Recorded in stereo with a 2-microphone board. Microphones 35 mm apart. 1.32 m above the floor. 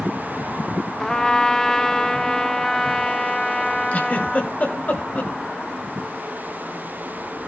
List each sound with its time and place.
1.0 s a trumpet: 15° left (ahead or behind), 0.8 m
3.9 s a giggle: 40° left (ahead or behind), 1.5 m